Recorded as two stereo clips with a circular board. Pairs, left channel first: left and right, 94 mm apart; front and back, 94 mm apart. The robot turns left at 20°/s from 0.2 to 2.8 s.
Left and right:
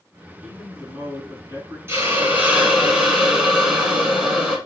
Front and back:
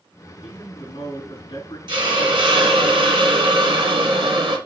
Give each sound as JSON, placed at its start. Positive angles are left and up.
{"t": 0.4, "sound": "a man speaking", "azimuth_deg": -5, "distance_m": 4.5}
{"t": 1.9, "sound": "a hiss", "azimuth_deg": -150, "distance_m": 2.0}